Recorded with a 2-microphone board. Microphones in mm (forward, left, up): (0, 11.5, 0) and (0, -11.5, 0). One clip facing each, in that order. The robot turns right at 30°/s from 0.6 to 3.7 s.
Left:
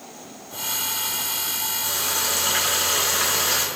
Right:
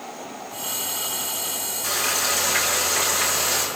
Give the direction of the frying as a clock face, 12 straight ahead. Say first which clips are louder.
Right 4 dB; 1 o'clock.